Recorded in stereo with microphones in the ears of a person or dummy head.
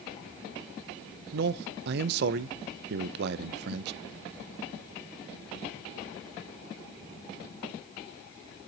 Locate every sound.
1.3 s a man speaking: 65° right (ahead or behind), 0.6 m